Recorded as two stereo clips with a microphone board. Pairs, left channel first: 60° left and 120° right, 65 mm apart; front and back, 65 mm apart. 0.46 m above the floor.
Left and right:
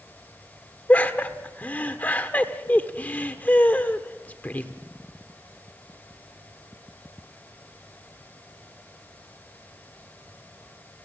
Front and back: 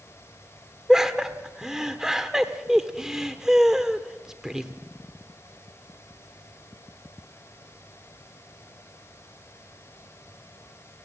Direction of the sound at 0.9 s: 105° left.